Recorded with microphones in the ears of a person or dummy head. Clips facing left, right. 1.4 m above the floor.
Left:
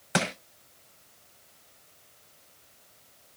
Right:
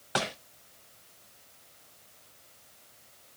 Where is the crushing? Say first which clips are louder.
Left 3 dB; 25° left (ahead or behind), 0.8 m.